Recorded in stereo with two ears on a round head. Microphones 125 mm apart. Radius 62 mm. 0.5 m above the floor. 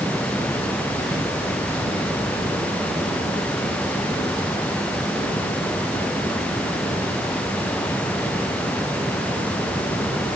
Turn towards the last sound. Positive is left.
No sound to turn to.